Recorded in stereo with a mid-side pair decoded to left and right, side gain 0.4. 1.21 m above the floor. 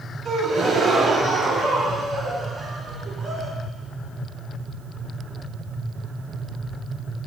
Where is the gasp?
65° right, 1.9 m.